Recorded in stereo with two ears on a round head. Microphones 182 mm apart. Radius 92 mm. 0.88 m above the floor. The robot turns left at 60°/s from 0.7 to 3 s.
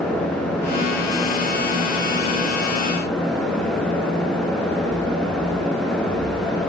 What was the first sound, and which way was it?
Only background noise.